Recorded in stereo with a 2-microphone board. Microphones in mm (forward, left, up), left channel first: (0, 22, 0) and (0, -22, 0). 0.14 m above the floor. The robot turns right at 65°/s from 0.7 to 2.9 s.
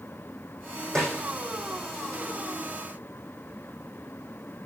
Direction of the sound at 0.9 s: 5° left (ahead or behind).